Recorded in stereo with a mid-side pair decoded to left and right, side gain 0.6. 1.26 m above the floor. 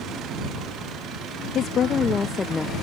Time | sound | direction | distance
1.6 | a woman speaking | 55° left | ?